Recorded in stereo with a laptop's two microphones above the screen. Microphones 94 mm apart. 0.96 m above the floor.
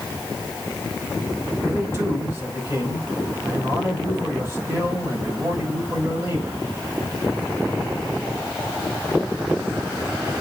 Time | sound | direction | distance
1.6 | a man speaking | 30° right (ahead or behind) | 5 m